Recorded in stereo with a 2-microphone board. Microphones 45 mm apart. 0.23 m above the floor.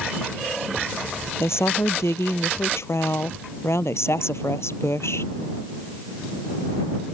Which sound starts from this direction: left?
A woman speaking, at 1.4 s.